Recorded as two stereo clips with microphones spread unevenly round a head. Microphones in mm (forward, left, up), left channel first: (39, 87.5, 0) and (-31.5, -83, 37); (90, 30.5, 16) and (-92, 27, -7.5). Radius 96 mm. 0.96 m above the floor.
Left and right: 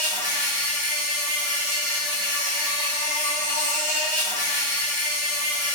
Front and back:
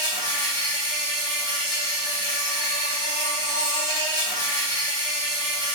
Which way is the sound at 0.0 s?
120° right.